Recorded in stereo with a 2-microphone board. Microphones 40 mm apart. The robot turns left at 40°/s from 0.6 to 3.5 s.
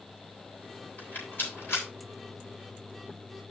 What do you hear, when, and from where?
1.0 s a rattle: 40° left (ahead or behind), 8.5 m; by 1.9 s 75° left (ahead or behind), 8.5 m